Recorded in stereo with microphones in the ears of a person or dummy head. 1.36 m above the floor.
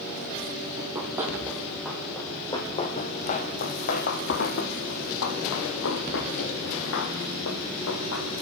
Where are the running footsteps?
25° right (ahead or behind), 2 m; by 8.3 s 70° left (ahead or behind), 5.5 m.